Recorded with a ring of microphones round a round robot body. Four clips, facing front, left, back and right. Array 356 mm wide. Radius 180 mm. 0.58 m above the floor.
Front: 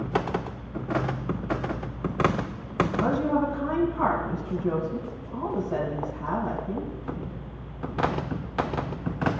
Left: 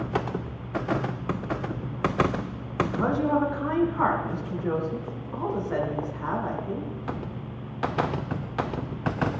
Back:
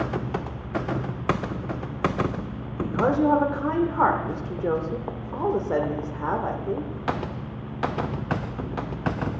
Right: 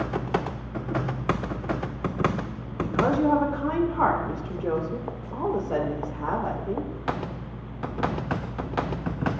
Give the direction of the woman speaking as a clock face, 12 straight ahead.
5 o'clock.